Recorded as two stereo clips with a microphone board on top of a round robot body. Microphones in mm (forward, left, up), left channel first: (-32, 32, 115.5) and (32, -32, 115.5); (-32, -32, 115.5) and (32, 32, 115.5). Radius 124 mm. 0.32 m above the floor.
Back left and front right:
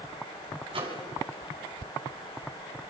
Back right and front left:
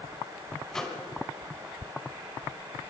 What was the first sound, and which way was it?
A microwave, 50° right.